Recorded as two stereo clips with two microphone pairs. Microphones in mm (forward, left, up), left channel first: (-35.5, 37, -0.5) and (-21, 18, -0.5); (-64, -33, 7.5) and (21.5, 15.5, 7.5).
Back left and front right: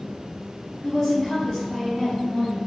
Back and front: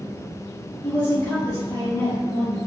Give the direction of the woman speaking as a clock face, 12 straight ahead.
4 o'clock.